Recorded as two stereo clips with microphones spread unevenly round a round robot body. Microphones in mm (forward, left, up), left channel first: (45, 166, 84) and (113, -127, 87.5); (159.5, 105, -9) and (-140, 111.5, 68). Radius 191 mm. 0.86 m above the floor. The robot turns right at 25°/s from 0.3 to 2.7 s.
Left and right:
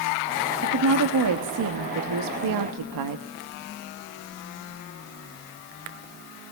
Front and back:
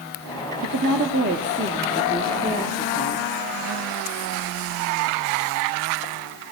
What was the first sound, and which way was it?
A woman speaking, 130° right.